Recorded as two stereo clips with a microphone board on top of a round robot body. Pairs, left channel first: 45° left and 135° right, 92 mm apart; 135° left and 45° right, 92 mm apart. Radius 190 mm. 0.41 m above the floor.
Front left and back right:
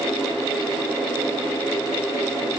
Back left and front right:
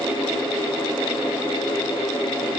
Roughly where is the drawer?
No drawer in this recording.